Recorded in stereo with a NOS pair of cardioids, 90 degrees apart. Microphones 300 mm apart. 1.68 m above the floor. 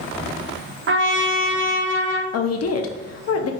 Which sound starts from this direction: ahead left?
A woman speaking, at 2.3 s.